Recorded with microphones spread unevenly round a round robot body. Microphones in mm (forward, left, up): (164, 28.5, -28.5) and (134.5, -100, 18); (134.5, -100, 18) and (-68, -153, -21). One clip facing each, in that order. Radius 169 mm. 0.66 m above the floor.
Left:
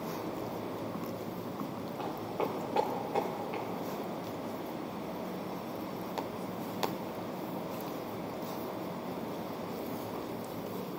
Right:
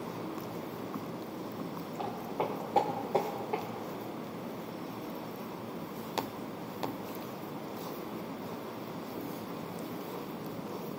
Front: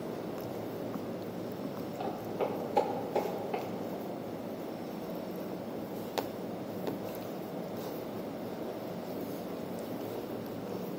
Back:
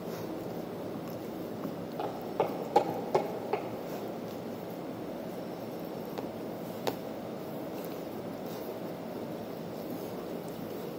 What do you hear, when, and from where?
2.0 s footsteps: 175° left, 1.8 m; by 3.6 s 150° right, 1.9 m